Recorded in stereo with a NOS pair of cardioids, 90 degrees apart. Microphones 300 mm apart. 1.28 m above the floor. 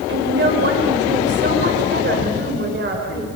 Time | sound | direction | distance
0.1 | a woman speaking | 35° right | 6 m